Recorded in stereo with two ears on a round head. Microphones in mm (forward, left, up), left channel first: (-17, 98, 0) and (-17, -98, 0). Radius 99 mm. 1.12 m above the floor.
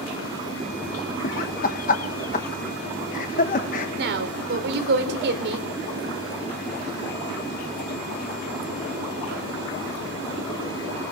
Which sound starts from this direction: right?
A woman speaking, at 4.0 s.